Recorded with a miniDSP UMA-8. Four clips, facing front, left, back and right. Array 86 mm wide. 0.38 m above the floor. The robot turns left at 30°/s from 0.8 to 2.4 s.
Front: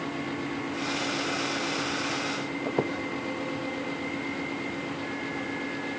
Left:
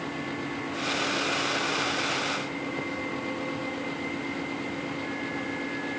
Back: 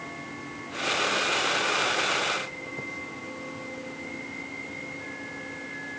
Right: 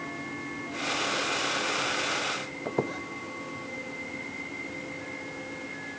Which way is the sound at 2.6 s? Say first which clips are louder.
Right 2 dB, front 9 dB; 40° right.